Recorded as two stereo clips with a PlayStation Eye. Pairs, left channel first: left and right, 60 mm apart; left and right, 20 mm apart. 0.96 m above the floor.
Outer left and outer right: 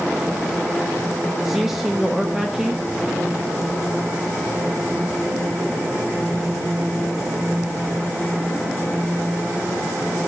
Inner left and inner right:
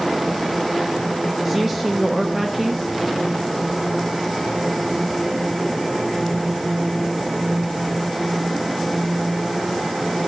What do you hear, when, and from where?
1.4 s a man speaking: 5° right (ahead or behind), 1.1 m